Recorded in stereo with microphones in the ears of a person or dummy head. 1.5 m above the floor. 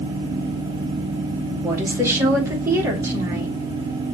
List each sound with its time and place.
1.6 s a woman speaking: 15° right (ahead or behind), 1.5 m